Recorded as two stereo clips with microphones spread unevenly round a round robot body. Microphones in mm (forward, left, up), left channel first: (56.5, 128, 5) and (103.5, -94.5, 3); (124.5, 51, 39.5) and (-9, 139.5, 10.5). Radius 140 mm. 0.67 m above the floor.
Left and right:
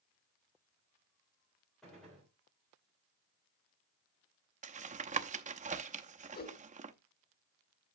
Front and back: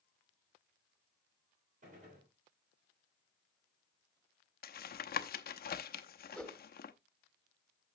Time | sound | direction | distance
1.8 | a gunshot | 170° right | 3 m
4.6 | tapping | 30° right | 0.8 m
6.3 | a whoosh | 55° left | 1.8 m